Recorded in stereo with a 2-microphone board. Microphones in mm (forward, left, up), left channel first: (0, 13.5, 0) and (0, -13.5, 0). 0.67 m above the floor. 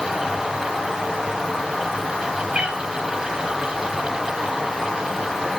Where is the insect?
15° right (ahead or behind), 9.5 m.